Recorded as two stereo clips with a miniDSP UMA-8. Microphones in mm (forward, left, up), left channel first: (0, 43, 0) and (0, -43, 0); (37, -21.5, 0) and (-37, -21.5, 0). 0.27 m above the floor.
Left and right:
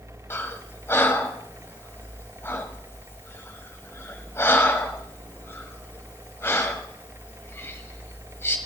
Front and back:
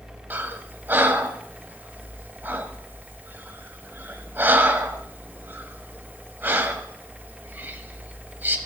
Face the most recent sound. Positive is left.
turn(degrees=135)